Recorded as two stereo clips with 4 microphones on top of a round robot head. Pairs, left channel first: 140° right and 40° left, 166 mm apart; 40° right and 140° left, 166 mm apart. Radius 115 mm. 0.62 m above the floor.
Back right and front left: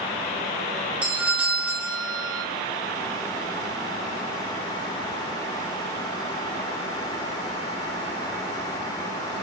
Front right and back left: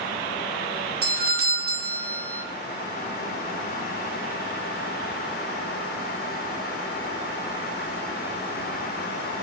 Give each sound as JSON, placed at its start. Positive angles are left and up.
{"t": 1.0, "sound": "a doorbell", "azimuth_deg": 125, "distance_m": 2.0}